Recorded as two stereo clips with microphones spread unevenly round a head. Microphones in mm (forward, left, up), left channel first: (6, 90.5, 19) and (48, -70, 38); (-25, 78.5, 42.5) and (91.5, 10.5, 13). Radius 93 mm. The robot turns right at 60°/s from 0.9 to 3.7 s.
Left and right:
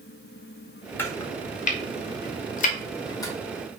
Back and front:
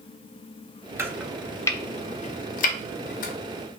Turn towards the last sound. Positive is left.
turn(degrees=-165)